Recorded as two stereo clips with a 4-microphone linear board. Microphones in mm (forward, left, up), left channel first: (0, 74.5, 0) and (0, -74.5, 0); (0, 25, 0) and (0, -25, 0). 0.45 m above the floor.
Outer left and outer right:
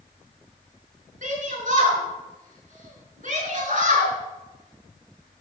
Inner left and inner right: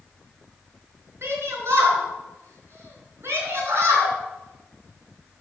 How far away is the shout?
About 4 m.